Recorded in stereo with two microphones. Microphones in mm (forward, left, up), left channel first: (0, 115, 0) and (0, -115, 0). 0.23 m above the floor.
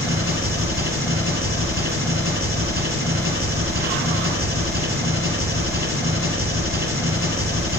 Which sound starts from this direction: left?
An engine running, at 0.0 s.